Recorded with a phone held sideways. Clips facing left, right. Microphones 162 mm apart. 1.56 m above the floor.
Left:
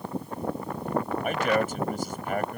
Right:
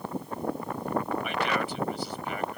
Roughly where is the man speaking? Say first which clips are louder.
Left 4 dB; left.